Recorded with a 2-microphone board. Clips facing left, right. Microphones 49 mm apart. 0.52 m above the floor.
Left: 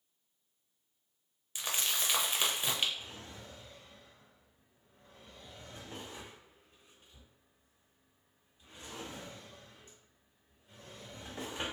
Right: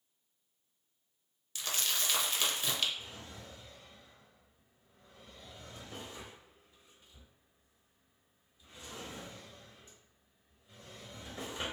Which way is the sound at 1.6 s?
20° left (ahead or behind).